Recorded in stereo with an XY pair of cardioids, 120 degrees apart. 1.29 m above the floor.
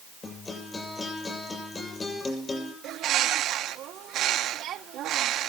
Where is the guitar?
25° left, 7 m.